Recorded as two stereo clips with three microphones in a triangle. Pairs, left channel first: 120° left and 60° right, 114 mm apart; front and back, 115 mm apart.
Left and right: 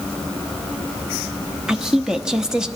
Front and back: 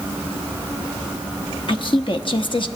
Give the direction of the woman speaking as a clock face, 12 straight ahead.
11 o'clock.